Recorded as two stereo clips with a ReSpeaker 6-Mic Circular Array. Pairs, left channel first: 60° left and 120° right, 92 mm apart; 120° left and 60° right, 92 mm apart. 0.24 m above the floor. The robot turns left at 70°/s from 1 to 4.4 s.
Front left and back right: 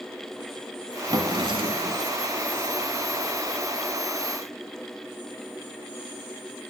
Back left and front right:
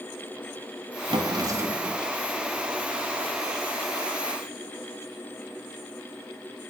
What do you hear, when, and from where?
1.1 s a drawer: 80° right, 1.3 m; by 2.0 s 145° right, 1.3 m